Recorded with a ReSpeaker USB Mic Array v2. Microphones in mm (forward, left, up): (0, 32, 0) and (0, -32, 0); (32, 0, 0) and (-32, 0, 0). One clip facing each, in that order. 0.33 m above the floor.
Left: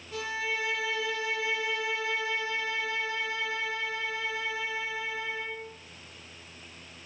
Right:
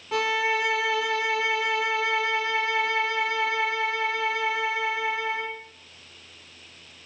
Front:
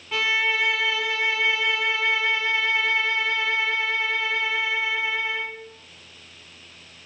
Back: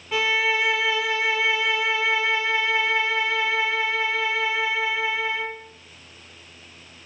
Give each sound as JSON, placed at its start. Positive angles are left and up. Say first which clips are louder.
{"t": 0.1, "sound": "a violin", "louder": "right 9 dB, back 1 dB", "azimuth_deg": -95, "distance_m": 2.5}